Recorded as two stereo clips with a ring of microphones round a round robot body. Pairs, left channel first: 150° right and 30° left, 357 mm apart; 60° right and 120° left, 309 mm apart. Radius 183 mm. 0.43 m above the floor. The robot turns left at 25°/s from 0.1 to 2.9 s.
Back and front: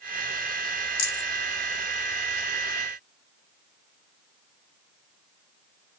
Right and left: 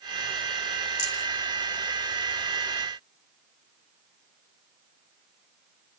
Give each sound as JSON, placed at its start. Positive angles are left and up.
{"t": 1.0, "sound": "a rattle", "azimuth_deg": -115, "distance_m": 3.0}